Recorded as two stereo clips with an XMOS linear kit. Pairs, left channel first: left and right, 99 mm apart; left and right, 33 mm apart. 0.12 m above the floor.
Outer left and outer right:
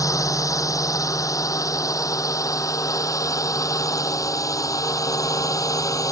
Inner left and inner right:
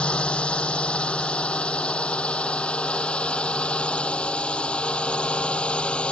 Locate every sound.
0.0 s a drone: 35° left (ahead or behind)